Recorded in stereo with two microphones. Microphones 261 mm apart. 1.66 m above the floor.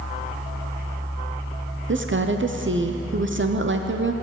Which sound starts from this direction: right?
A woman speaking, at 1.9 s.